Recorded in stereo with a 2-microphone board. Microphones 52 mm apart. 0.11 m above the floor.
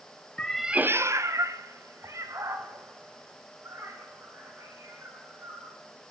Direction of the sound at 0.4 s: 20° left (ahead or behind).